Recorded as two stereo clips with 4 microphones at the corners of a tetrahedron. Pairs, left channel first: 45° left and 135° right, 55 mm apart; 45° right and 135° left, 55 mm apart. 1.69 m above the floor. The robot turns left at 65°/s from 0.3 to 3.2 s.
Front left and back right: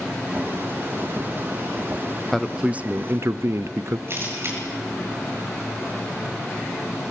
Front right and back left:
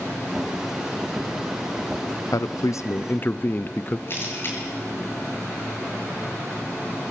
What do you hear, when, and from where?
2.3 s a man speaking: 40° right, 0.7 m; by 4.0 s 100° right, 0.7 m
4.1 s a camera shutter: 90° right, 7.5 m